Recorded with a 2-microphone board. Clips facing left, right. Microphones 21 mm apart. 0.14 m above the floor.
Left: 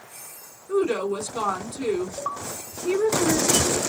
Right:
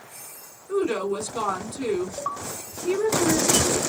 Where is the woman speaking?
20° left (ahead or behind), 1.7 m.